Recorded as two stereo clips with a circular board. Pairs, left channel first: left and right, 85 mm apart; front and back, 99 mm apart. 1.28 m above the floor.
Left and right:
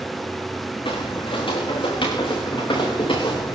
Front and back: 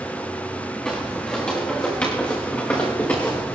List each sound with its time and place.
0.8 s footsteps: 80° left, 6 m; by 3.5 s 70° left, 6.5 m